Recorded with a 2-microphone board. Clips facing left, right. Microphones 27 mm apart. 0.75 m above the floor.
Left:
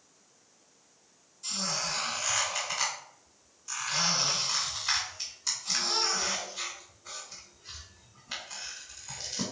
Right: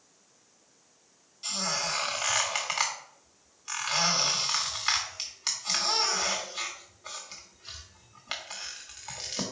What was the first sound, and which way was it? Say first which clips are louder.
A squeak: right 2 dB; 55° right (ahead or behind).